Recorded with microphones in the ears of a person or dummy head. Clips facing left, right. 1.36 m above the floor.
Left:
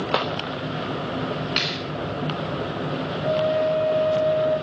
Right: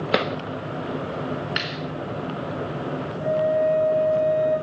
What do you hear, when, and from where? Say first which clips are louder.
0.1 s a drawer: right 4 dB; 35° right (ahead or behind), 0.7 m
1.6 s a clap: left 2 dB; 25° right (ahead or behind), 3.5 m
3.2 s a flute: right 1 dB; 70° right (ahead or behind), 9 m